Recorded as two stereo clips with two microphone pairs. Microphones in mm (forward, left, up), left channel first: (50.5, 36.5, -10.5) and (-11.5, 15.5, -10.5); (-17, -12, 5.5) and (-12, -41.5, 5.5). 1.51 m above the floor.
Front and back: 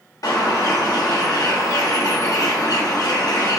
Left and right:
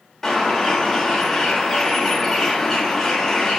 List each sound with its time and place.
0.2 s a bird: 15° left, 0.7 m